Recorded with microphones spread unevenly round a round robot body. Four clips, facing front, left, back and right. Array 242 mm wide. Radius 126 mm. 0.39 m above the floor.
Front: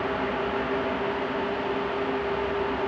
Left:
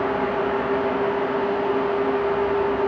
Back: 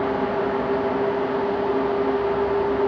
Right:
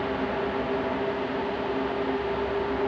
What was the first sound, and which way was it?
Only background noise.